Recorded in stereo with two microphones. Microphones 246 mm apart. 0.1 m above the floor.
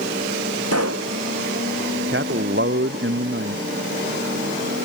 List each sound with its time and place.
0.7 s a pop: 80° right
2.1 s a man speaking: 50° right (ahead or behind)